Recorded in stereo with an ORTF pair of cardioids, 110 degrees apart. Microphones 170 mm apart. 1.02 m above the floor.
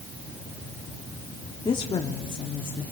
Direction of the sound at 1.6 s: 25° left.